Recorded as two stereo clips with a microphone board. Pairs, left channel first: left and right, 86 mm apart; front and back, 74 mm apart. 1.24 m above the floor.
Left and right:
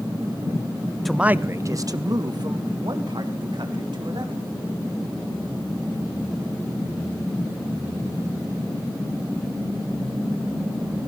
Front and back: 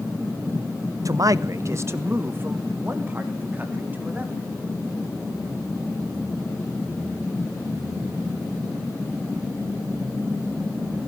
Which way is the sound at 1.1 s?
175° left.